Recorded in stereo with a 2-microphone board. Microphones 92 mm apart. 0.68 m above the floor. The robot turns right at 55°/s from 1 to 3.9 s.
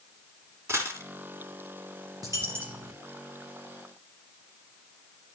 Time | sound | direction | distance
0.7 | a dropped coin | 30° right (ahead or behind) | 2 m
2.2 | a dropped coin | 40° right | 2.5 m